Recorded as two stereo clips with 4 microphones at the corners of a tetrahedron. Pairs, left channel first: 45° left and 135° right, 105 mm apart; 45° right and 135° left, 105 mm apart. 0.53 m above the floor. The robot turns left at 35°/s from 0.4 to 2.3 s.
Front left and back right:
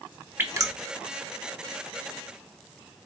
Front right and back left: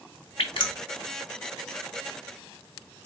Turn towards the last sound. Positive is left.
turn(degrees=-140)